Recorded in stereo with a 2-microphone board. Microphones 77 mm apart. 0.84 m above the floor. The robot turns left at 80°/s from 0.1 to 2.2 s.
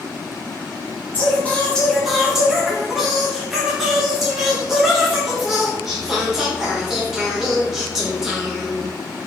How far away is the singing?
About 0.8 m.